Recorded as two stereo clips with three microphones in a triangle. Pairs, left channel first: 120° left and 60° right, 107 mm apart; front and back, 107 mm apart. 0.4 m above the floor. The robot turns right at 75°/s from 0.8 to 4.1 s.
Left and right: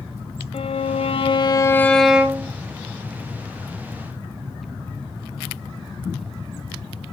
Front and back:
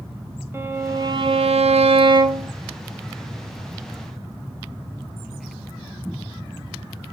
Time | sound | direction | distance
0.5 | a violin | 115° left | 0.9 m